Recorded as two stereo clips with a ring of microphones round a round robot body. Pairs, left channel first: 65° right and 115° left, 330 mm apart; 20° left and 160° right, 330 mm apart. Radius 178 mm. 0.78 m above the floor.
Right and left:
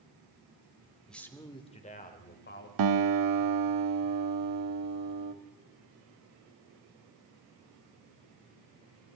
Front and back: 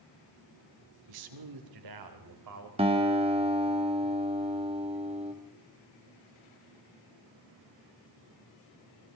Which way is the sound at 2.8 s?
130° left.